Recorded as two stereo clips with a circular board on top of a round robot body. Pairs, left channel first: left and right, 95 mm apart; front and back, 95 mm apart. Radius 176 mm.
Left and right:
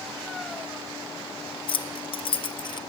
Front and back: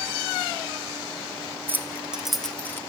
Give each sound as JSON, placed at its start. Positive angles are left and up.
{"t": 1.7, "sound": "keys jangling", "azimuth_deg": 115, "distance_m": 1.3}